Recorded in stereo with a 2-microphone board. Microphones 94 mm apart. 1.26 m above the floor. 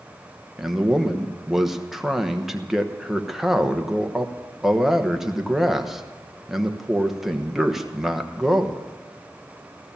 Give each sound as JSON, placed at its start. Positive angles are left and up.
{"t": 0.6, "sound": "a man speaking", "side_deg": -5, "distance_m": 1.1}